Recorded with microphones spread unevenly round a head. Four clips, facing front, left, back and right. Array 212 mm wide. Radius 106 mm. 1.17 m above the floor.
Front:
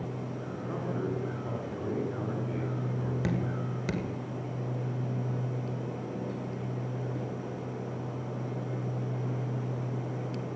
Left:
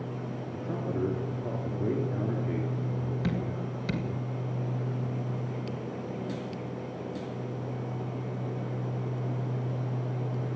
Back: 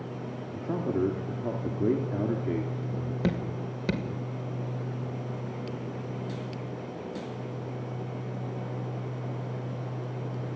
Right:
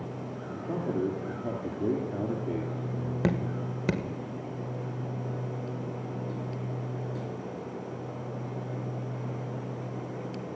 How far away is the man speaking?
About 3 m.